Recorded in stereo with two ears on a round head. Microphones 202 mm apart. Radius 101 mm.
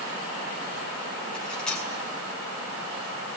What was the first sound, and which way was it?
Cutlery clinking, 5° left (ahead or behind).